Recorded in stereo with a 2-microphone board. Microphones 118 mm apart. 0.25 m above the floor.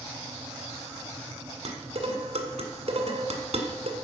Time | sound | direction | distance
1.6 | dishes clattering | 65° right (ahead or behind) | 1.7 m